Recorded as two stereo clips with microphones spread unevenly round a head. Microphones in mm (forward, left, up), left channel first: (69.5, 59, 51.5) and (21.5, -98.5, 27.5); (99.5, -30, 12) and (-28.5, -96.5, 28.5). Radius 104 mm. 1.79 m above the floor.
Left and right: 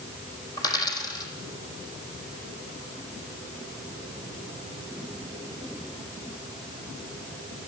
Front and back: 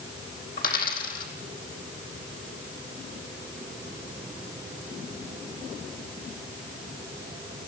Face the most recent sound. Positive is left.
turn(degrees=10)